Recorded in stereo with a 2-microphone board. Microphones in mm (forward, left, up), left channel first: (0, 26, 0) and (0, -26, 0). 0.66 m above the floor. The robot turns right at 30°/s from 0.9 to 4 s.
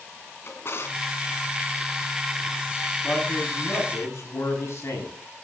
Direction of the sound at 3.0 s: 30° left (ahead or behind).